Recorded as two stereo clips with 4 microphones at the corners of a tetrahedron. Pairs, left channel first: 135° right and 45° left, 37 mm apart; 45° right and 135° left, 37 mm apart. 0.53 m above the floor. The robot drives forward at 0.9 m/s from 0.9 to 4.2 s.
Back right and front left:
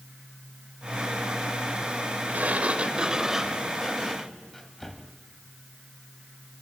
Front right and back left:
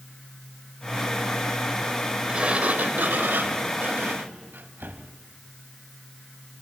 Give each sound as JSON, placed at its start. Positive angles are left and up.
{"t": 2.3, "sound": "a sliding door", "azimuth_deg": 75, "distance_m": 1.2}